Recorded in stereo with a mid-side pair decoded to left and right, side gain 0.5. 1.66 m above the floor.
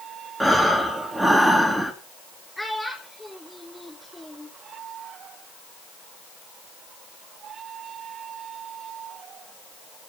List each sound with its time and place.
0.4 s breathing: 15° right, 3 m
2.6 s a child speaking: 5° left, 3.5 m